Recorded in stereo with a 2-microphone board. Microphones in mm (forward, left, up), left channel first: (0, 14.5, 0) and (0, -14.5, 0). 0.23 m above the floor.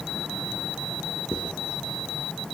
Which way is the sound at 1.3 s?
45° right (ahead or behind).